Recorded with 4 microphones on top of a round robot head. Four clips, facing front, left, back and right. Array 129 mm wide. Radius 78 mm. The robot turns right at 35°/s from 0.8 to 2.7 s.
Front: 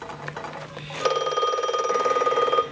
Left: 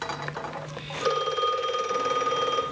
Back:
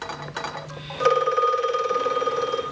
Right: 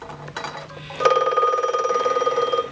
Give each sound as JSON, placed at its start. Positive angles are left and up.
{"t": 1.0, "sound": "a phone ringing", "azimuth_deg": -80, "distance_m": 0.8}